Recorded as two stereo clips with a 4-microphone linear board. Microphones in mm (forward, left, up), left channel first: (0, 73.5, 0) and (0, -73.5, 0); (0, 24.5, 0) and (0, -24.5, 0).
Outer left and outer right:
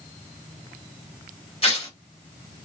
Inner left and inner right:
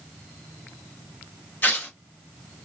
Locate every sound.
1.6 s tearing paper: 40° left (ahead or behind), 1.9 m